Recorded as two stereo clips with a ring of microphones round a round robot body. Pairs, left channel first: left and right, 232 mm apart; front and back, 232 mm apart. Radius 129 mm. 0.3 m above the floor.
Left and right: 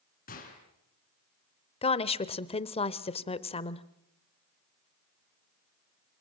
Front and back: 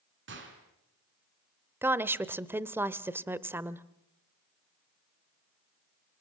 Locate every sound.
0.3 s a gunshot: 145° left, 4.5 m
1.8 s a woman speaking: 110° left, 0.9 m